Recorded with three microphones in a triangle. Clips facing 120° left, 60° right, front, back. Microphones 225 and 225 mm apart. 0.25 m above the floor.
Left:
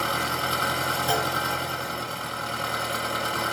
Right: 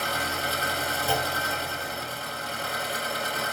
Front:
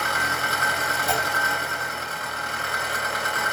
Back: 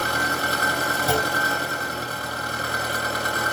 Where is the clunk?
165° right, 0.7 m.